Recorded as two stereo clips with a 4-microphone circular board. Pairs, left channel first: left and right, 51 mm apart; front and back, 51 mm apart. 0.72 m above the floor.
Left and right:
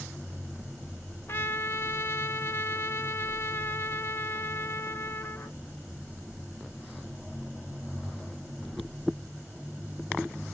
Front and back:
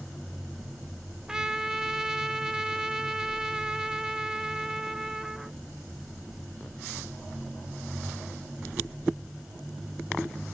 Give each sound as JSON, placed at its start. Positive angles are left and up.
{"t": 1.3, "sound": "a trumpet", "azimuth_deg": 105, "distance_m": 0.6}